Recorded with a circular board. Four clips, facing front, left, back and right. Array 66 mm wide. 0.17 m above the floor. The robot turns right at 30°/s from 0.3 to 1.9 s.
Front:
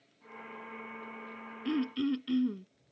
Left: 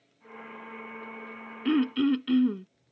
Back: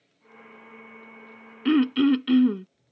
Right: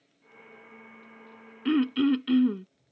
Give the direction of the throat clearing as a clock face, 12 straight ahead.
6 o'clock.